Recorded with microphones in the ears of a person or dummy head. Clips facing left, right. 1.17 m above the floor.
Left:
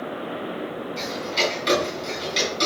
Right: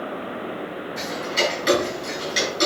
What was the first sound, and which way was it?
Ticking, 15° right (ahead or behind).